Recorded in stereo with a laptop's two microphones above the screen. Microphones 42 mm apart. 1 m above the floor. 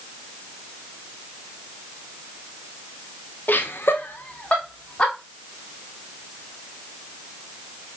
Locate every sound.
3.5 s laughter: 50° left (ahead or behind), 0.6 m; by 5.1 s 20° left (ahead or behind), 1.4 m